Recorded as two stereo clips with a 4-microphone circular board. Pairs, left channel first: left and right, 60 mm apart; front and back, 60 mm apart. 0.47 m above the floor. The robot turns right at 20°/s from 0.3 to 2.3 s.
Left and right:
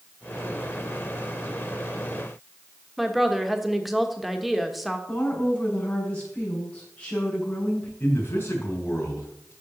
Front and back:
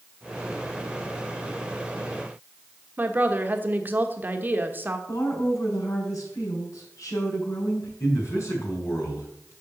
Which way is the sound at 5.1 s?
20° left.